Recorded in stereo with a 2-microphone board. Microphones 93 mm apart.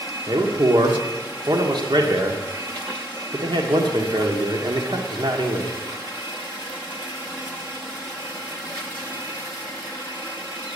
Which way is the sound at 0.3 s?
60° right (ahead or behind).